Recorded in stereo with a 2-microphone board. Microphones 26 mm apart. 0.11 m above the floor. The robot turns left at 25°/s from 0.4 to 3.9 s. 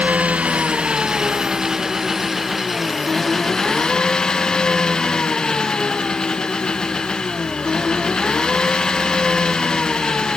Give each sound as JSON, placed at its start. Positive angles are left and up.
{"t": 0.0, "sound": "an engine running", "azimuth_deg": -120}